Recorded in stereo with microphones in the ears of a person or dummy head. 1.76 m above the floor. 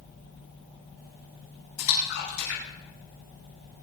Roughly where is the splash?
Left.